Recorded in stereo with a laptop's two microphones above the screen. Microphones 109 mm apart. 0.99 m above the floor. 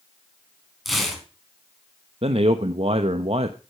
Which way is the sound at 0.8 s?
Centre (ahead or behind).